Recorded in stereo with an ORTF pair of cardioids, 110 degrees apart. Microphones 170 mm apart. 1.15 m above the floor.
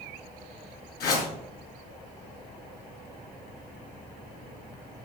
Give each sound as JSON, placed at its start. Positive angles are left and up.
{"t": 1.0, "sound": "a whoosh", "azimuth_deg": 70, "distance_m": 5.5}